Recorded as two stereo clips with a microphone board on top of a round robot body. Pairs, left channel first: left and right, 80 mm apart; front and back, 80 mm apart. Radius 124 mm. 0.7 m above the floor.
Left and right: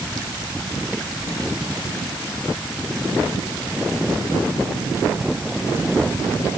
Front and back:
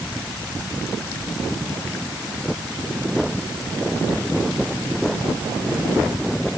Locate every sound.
Only background noise.